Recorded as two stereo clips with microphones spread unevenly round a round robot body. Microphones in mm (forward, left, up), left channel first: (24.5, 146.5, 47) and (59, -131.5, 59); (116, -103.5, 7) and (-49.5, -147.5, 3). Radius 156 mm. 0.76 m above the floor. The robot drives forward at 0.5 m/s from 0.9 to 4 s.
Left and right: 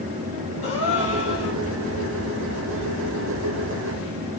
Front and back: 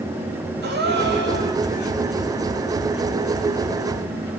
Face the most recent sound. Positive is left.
turn(degrees=-160)